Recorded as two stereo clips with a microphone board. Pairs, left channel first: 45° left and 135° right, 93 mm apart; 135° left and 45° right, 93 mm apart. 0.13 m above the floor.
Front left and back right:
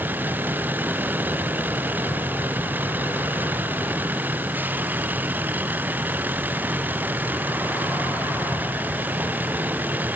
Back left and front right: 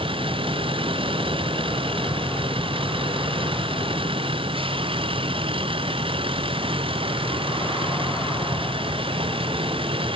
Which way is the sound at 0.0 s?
65° right.